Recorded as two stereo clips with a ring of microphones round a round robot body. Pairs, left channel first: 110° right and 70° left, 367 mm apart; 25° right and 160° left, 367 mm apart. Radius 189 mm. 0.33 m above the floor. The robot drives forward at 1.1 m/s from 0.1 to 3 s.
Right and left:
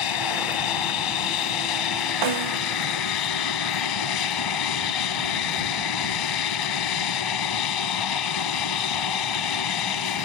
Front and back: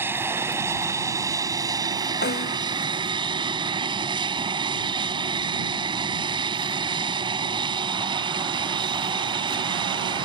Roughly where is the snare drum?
Ahead left.